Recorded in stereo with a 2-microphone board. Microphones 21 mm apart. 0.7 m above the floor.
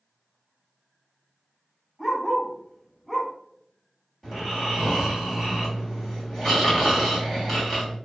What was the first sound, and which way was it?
A dog barking, 5° left (ahead or behind).